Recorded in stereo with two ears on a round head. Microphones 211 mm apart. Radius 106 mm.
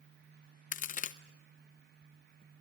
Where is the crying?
I don't hear crying.